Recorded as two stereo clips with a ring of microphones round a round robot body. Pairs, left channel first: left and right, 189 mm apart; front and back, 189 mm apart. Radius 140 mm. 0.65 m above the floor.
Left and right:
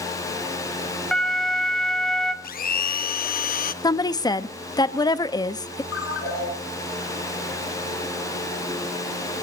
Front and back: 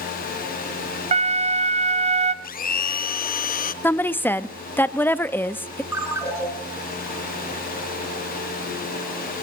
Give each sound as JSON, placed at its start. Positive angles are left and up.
{"t": 1.1, "sound": "a flute", "azimuth_deg": 175, "distance_m": 0.8}
{"t": 2.4, "sound": "a blender", "azimuth_deg": 45, "distance_m": 0.5}
{"t": 3.8, "sound": "a woman speaking", "azimuth_deg": 65, "distance_m": 0.5}
{"t": 5.9, "sound": "a ringtone", "azimuth_deg": 105, "distance_m": 4.5}